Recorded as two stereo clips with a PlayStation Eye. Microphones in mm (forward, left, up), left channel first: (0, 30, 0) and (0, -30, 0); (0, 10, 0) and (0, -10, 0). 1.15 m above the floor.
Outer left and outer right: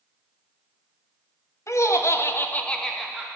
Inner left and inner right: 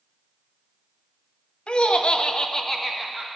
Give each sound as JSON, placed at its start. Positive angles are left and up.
{"t": 1.7, "sound": "laughter", "side_deg": 55, "distance_m": 1.1}